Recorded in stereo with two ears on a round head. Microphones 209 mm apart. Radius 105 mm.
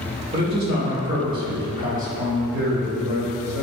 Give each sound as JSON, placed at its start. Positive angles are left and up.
{"t": 0.3, "sound": "a man speaking", "side_deg": -30, "distance_m": 3.5}